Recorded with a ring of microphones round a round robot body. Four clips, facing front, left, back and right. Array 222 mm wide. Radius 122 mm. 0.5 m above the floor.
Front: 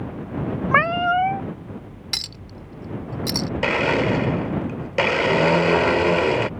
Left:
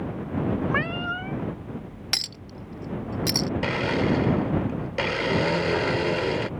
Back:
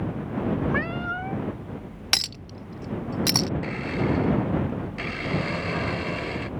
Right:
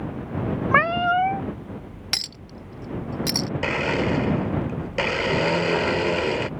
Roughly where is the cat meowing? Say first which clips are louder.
Right 8 dB, front 9 dB; ahead right.